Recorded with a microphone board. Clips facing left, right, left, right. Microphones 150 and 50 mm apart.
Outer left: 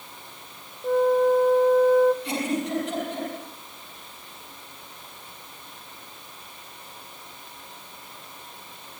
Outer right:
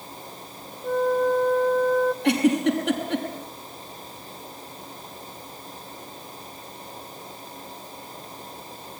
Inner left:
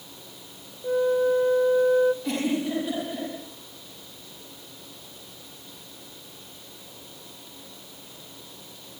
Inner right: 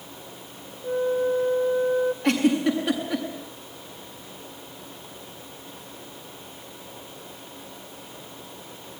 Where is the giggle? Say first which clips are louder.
Outer right 7 dB, inner right 5 dB; 65° right (ahead or behind), 7 m.